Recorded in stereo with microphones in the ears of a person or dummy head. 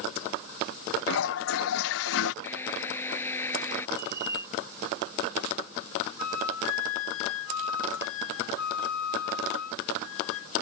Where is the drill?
10° left (ahead or behind).